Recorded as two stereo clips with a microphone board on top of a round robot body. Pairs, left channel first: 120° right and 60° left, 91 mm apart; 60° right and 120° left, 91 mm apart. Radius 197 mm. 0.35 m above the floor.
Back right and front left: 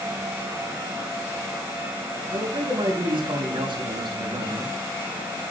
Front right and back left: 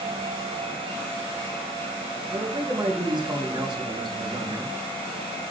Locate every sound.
2.3 s a man speaking: 85° left, 4 m